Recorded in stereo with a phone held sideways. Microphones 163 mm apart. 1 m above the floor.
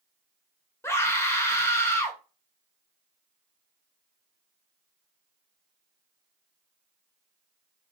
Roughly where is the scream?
Centre.